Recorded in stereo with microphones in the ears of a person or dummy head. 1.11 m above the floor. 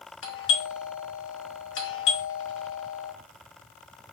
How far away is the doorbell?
About 3 m.